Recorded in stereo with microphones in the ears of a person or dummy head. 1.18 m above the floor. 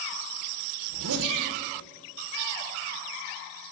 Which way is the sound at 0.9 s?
80° right.